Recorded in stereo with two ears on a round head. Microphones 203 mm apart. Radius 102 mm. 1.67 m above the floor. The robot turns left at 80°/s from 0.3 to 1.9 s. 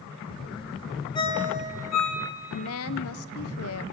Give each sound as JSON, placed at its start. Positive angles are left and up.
{"t": 1.1, "sound": "a ringtone", "side_deg": 20, "distance_m": 2.5}
{"t": 2.5, "sound": "a woman speaking", "side_deg": 65, "distance_m": 0.8}